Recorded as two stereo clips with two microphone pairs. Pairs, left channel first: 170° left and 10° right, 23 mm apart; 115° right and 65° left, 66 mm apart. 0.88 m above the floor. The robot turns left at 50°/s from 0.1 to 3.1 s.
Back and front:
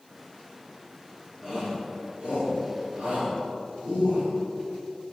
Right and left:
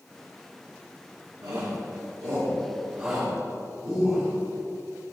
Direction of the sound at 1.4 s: 75° left.